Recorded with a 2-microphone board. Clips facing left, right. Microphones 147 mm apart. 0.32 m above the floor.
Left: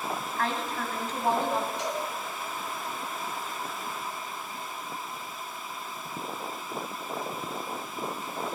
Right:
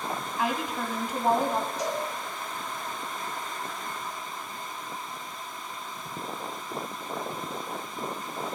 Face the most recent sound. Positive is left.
turn(degrees=-40)  # may be behind; listen again after turning